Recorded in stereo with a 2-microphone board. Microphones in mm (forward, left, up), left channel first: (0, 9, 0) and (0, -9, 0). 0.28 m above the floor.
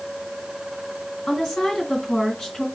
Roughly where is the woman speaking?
Left.